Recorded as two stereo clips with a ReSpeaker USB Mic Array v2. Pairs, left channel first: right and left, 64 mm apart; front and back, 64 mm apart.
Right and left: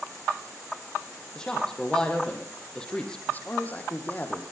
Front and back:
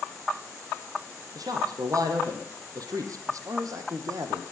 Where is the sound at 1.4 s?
170° right, 5.5 m; by 3.2 s 165° right, 4 m.